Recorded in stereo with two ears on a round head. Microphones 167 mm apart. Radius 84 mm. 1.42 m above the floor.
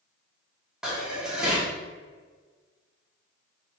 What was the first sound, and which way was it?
Dishes clattering, 5° right (ahead or behind).